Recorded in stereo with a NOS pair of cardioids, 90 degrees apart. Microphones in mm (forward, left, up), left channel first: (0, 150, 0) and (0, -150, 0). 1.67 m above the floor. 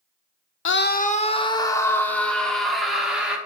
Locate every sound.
0.7 s a scream: 45° left, 0.7 m; by 3.4 s 5° right, 2.5 m